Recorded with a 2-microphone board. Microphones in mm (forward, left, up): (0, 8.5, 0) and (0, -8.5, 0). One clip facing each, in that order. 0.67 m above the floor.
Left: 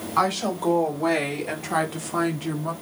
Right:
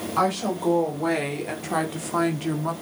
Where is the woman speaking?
15° left (ahead or behind), 3.5 m; by 2.7 s 20° right (ahead or behind), 1.6 m.